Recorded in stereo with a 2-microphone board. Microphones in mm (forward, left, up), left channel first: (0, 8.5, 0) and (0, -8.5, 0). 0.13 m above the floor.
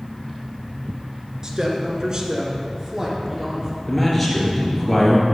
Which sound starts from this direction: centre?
A man speaking, at 3.9 s.